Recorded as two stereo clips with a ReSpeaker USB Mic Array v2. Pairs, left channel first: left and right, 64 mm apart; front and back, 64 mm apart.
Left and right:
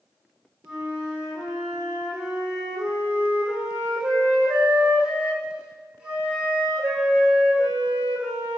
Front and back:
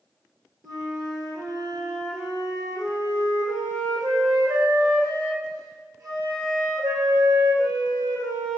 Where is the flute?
165° right, 3.5 m.